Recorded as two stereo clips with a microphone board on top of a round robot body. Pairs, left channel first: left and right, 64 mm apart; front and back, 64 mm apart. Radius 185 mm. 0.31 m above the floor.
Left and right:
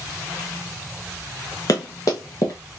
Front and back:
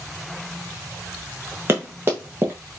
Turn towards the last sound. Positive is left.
turn(degrees=125)